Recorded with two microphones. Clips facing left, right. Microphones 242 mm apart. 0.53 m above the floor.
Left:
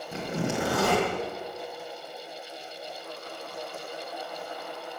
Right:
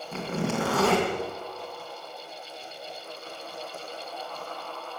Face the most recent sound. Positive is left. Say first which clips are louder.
# right 1 dB
turn(degrees=15)  # may be behind; listen again after turning